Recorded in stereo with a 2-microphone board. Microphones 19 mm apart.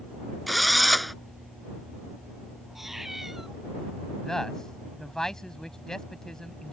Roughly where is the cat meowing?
Right.